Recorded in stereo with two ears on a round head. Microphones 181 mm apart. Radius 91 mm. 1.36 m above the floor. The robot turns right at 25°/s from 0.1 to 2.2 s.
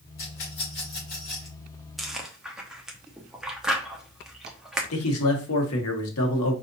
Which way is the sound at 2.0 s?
Centre (ahead or behind).